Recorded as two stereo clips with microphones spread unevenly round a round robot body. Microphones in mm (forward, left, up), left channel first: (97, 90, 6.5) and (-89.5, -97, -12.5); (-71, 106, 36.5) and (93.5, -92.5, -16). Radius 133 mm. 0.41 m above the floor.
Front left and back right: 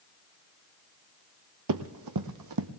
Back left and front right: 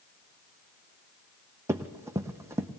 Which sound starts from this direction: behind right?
Running footsteps, at 1.7 s.